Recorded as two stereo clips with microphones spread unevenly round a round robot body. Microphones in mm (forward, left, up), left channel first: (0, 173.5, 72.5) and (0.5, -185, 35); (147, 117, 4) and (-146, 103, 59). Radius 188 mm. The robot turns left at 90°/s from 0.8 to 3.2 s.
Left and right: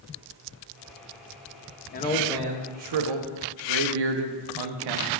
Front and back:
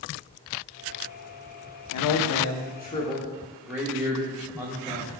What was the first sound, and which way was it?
A man speaking, 25° left.